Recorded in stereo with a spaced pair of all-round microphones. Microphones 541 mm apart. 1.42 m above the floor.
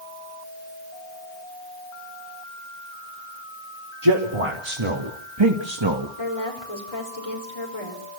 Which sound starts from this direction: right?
A man speaking, at 4.0 s.